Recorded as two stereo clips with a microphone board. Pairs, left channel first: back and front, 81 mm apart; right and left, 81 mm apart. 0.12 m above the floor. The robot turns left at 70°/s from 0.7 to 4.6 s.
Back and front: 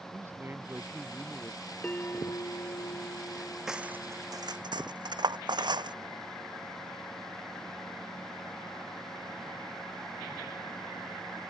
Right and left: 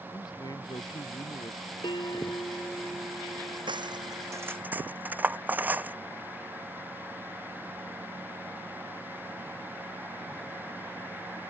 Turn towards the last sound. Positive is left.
turn(degrees=20)